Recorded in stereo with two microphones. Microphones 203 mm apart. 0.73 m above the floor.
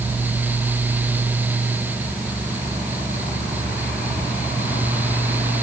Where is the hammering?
No hammering in this recording.